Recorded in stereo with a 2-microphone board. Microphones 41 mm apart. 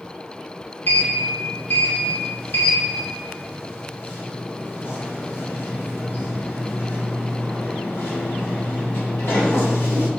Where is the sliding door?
70° left (ahead or behind), 0.8 m.